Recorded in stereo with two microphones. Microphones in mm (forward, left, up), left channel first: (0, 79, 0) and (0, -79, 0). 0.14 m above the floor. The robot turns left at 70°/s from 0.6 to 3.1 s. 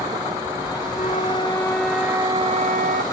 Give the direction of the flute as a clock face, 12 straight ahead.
10 o'clock.